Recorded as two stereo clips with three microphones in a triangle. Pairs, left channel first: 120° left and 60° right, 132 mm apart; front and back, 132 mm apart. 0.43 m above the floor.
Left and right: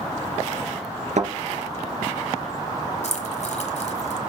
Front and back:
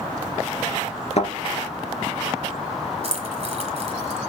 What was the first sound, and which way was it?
A thud, 35° right.